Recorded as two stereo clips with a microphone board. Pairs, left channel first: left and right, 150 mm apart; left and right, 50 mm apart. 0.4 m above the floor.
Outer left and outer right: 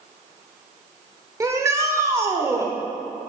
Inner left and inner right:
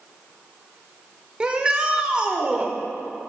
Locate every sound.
1.4 s a shout: 20° right (ahead or behind), 0.8 m